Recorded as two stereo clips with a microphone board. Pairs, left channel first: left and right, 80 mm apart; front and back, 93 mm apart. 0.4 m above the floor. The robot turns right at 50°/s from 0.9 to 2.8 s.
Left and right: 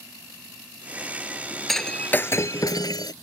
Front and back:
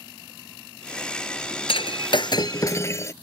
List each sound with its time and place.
1.7 s breaking glass: straight ahead; by 3.1 s 55° left